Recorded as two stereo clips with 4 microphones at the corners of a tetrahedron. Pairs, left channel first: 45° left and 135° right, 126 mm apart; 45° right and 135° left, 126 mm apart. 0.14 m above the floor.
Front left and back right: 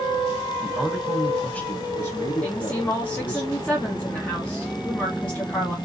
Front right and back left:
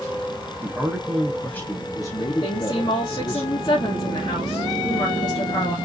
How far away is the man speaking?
About 1.1 m.